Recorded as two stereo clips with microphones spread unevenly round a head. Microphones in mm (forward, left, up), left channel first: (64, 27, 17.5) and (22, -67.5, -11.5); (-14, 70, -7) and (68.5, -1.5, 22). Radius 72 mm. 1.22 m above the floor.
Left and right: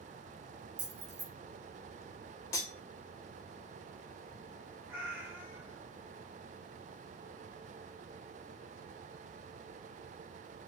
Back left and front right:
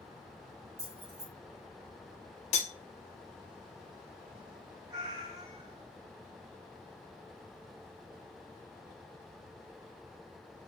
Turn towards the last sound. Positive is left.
turn(degrees=-30)